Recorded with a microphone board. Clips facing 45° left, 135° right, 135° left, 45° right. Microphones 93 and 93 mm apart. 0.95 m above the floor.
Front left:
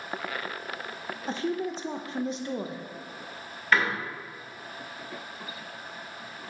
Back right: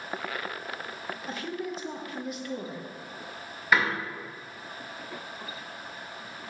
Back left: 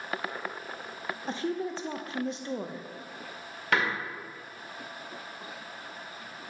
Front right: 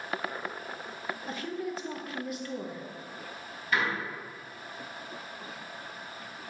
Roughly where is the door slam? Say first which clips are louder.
Even, back left 2 dB; behind left.